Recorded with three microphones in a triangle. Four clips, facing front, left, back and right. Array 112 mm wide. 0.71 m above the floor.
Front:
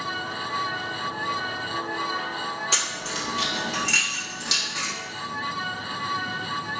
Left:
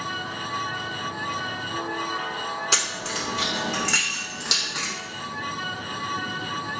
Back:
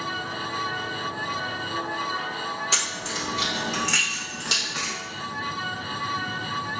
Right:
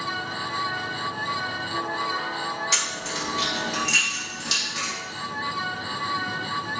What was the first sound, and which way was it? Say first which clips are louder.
Keys jangling: left 1 dB, even; 90° left.